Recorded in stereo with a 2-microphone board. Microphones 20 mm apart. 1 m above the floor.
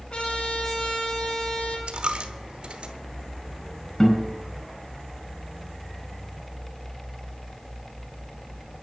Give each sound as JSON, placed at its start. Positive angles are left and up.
{"t": 0.1, "sound": "a trumpet", "side_deg": 55, "distance_m": 4.5}
{"t": 1.9, "sound": "a dropped coin", "side_deg": -55, "distance_m": 1.1}
{"t": 4.0, "sound": "a guitar", "side_deg": 25, "distance_m": 4.5}